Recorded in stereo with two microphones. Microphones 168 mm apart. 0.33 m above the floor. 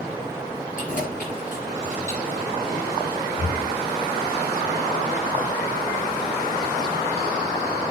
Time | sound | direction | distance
0.8 | keys jangling | 50° left (ahead or behind) | 4 m
3.4 | breathing | 35° left (ahead or behind) | 0.7 m